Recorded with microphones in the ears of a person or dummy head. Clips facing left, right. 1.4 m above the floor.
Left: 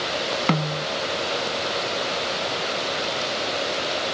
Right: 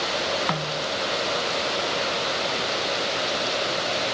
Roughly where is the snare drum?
Left.